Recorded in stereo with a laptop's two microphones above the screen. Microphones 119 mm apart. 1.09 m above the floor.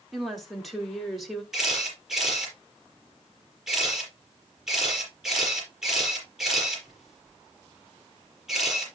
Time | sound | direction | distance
0.1 | a woman speaking | centre (ahead or behind) | 2.5 m
1.5 | a camera shutter | 5° right (ahead or behind) | 5.5 m